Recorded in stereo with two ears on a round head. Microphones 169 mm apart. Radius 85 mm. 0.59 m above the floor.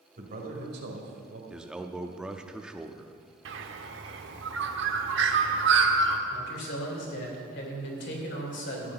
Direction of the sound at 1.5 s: 5° right (ahead or behind).